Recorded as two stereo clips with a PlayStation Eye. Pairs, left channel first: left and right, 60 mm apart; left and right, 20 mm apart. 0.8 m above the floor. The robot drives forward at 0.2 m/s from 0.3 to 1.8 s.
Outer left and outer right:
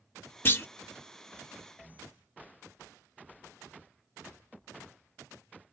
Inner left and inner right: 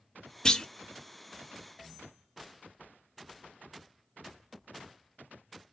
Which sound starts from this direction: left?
A clunk, at 0.5 s.